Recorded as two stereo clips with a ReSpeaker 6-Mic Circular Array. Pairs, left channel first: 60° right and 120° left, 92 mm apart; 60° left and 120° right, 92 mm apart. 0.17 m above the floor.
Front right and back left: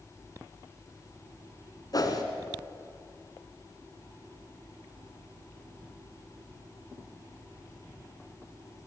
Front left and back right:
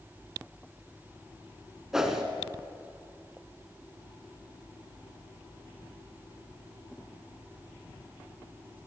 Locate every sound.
1.9 s a whoosh: 40° right, 2.0 m